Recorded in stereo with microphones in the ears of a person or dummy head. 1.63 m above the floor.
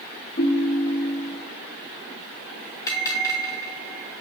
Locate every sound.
0.4 s a ringtone: 25° left (ahead or behind), 0.7 m
2.9 s a bell: 20° left (ahead or behind), 2.5 m